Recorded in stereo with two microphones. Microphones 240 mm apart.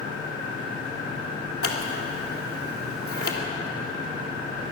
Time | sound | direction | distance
1.6 | scissors | 70° left (ahead or behind) | 2.5 m